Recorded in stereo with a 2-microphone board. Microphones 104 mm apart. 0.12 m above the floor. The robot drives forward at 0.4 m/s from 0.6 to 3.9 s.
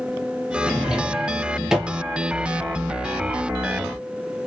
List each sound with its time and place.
0.7 s a drawer: 10° right (ahead or behind), 0.7 m; by 2.0 s 5° right (ahead or behind), 1.1 m